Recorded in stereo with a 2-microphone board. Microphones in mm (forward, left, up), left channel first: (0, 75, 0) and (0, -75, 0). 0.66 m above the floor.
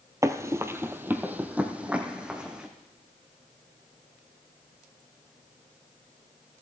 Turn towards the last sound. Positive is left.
turn(degrees=-5)  # may be behind; listen again after turning